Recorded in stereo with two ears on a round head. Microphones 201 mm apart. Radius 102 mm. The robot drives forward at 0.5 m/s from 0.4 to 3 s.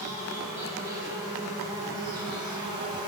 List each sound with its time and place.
0.0 s an insect: 15° right (ahead or behind), 2.5 m; by 3.1 s 20° right (ahead or behind), 1.5 m